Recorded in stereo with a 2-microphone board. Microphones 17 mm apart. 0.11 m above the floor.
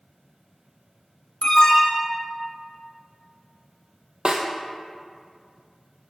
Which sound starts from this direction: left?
An alarm, at 1.4 s.